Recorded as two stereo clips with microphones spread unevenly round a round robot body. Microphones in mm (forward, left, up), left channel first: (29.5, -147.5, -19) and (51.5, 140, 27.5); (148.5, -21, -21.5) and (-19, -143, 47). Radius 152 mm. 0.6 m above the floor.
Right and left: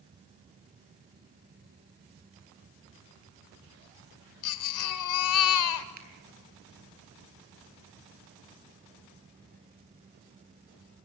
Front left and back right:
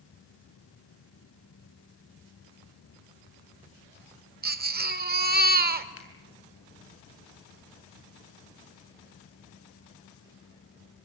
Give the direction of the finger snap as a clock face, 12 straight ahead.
11 o'clock.